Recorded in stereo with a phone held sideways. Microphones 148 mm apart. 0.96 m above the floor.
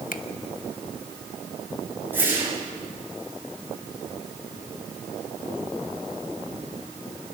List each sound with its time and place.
0.1 s a finger snap: 70° left (ahead or behind), 1.2 m
2.1 s a whoosh: 15° right (ahead or behind), 7 m